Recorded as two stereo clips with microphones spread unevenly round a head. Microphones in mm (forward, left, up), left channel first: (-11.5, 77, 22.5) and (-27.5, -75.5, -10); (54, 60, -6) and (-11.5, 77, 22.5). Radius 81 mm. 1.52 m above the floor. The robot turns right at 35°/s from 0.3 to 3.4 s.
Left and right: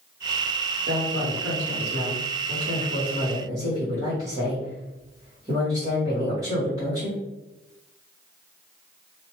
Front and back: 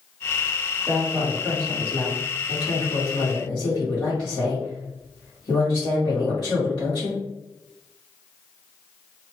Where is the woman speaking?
115° right, 1.3 m; by 7.2 s 25° right, 1.3 m.